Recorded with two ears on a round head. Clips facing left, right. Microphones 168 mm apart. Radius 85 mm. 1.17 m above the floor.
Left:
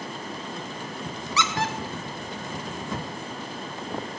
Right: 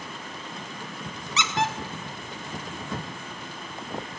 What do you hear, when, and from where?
1.4 s a squeak: 20° right (ahead or behind), 1.1 m